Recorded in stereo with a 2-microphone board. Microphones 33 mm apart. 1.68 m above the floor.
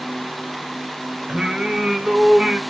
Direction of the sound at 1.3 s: 30° right (ahead or behind).